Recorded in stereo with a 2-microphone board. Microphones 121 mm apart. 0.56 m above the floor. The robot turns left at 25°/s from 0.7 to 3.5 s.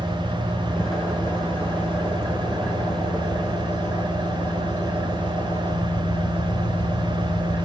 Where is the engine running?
150° left, 3 m; by 7.7 s 80° left, 3 m.